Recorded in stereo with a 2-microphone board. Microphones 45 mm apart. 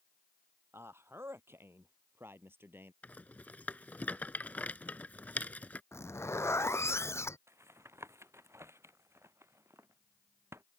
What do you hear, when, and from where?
0.7 s a man speaking: 65° right (ahead or behind); by 2.9 s 55° right (ahead or behind)
3.0 s a rattle: 35° left (ahead or behind)
5.9 s a zipper: 80° left
7.5 s tapping: 80° right